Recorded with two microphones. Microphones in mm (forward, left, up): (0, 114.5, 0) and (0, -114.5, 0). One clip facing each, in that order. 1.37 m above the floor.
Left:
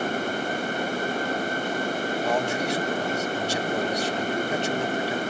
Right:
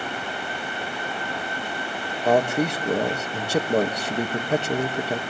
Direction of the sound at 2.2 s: 60° right (ahead or behind).